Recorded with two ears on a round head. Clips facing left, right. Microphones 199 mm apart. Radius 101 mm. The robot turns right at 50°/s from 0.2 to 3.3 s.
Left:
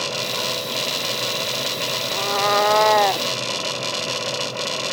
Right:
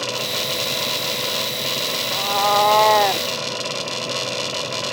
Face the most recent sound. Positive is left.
turn(degrees=-165)